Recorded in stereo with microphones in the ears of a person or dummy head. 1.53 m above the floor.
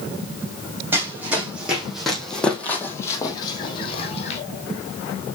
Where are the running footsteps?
15° right (ahead or behind), 4 m; by 4.4 s 45° left (ahead or behind), 3.5 m.